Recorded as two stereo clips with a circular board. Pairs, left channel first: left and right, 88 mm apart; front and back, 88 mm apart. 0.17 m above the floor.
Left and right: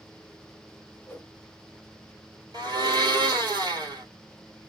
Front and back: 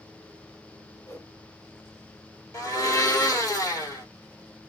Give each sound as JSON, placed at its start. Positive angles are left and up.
{"t": 1.1, "sound": "a whoosh", "azimuth_deg": 35, "distance_m": 0.8}
{"t": 2.5, "sound": "a blender", "azimuth_deg": -55, "distance_m": 1.5}